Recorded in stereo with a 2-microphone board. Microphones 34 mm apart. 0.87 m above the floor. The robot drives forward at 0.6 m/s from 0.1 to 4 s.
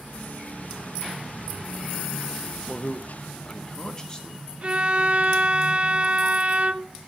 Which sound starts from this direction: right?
A violin, at 4.6 s.